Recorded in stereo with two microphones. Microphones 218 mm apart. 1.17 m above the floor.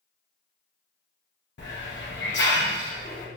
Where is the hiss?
55° left (ahead or behind), 0.8 m.